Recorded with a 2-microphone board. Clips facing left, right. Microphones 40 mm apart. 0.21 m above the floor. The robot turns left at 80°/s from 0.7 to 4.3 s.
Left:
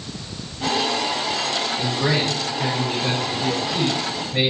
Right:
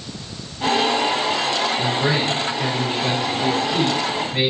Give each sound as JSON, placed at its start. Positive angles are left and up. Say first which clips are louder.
{"t": 1.8, "sound": "a man speaking", "louder": "right 2 dB", "azimuth_deg": 70, "distance_m": 1.3}